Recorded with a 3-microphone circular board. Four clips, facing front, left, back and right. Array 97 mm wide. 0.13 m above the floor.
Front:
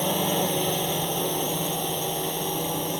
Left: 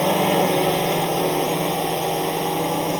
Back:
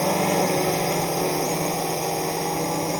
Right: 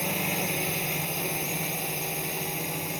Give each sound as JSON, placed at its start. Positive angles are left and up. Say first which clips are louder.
{"t": 0.0, "sound": "a drone", "louder": "left 14 dB, back 4 dB", "azimuth_deg": 105}